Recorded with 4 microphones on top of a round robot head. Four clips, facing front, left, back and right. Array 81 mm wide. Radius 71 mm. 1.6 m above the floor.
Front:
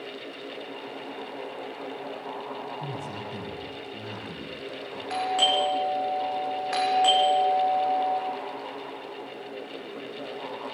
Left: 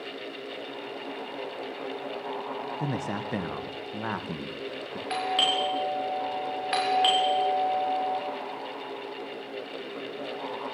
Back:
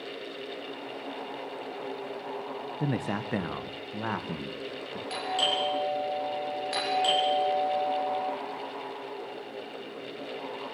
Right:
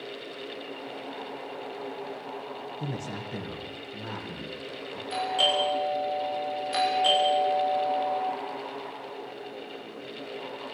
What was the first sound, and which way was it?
A man speaking, 155° left.